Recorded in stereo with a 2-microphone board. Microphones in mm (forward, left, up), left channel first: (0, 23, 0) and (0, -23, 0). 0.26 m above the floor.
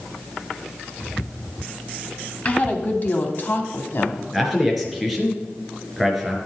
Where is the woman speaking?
35° left (ahead or behind), 1.9 m; by 4.2 s 50° left (ahead or behind), 2 m.